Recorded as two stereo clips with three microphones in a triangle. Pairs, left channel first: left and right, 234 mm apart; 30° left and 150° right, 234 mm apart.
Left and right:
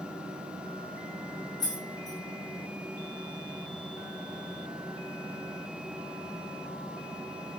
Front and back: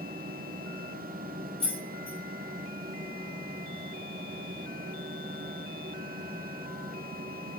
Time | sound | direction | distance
1.6 | keys jangling | 155° left | 1.2 m